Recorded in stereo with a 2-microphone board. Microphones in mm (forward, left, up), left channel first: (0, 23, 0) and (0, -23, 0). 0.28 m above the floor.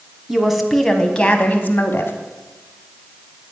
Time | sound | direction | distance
0.3 | a woman speaking | 10° right (ahead or behind) | 2 m